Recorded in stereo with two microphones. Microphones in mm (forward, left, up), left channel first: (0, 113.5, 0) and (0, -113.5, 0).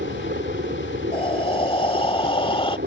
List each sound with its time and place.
0.0 s a helicopter: 45° right (ahead or behind)
1.1 s breathing: 25° left (ahead or behind)